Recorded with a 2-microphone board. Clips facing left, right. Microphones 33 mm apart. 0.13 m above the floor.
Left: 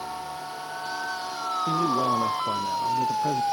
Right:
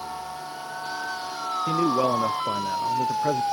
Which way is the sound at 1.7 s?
65° right (ahead or behind).